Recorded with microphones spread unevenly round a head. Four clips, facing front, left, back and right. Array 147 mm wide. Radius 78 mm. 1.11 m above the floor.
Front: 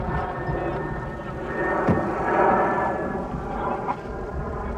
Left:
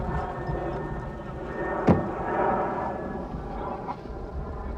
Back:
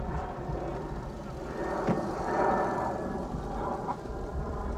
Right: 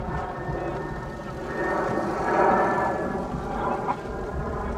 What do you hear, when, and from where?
0.0 s an aircraft: 5° right; by 4.8 s 50° right
1.9 s knocking: 60° left